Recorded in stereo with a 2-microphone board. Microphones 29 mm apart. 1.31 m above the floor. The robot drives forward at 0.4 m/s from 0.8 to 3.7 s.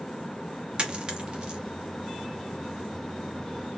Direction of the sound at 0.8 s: 30° right (ahead or behind).